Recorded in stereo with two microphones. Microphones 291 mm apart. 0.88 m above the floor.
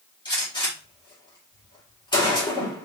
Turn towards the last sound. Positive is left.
turn(degrees=15)  # may be behind; listen again after turning